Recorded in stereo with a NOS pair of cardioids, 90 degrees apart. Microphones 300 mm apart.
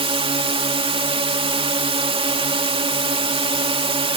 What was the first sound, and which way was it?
A drone, 20° right.